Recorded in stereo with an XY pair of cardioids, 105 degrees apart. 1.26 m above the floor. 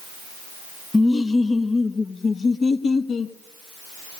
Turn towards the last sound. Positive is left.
turn(degrees=50)